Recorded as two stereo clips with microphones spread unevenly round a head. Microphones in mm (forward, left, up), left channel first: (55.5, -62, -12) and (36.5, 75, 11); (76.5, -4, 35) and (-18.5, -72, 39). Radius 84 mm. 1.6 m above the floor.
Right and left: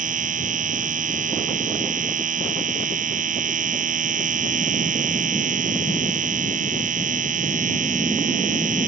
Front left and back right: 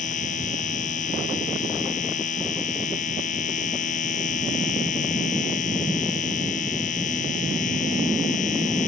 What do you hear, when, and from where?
0.0 s a machine running: 70° left